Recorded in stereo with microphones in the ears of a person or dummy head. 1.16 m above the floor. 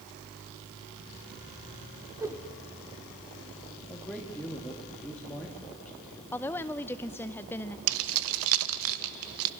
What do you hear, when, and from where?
2.2 s a whoosh: 15° right (ahead or behind), 1.8 m
3.9 s a man speaking: 5° left (ahead or behind), 1.7 m
6.3 s a woman speaking: 10° left (ahead or behind), 0.5 m
7.9 s keys jangling: 75° right (ahead or behind), 0.6 m